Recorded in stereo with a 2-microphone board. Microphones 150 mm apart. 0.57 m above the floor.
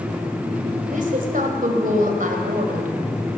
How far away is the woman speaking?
About 2.5 m.